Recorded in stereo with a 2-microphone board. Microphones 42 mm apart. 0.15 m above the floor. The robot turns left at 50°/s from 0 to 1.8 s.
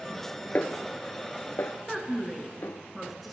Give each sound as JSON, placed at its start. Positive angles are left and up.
{"t": 0.6, "sound": "a snare drum", "side_deg": 40, "distance_m": 0.7}
{"t": 1.9, "sound": "a woman speaking", "side_deg": 0, "distance_m": 1.7}